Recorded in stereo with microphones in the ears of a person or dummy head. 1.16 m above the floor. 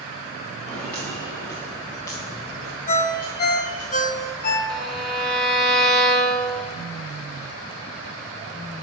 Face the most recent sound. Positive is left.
turn(degrees=0)  # may be behind; listen again after turning